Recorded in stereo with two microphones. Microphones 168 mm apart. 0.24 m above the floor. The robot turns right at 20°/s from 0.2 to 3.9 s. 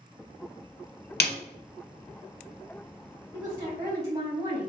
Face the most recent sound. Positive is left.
turn(degrees=-20)  # may be behind; listen again after turning